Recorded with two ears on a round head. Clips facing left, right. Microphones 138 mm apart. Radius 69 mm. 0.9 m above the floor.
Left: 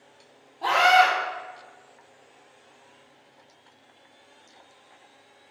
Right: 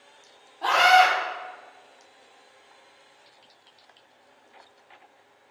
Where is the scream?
5° left (ahead or behind), 2.0 m.